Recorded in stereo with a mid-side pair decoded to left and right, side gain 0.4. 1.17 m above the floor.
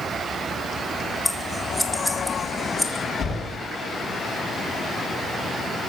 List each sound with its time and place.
1.2 s scissors: 10° left, 2.0 m
3.2 s knocking: 60° left, 5.5 m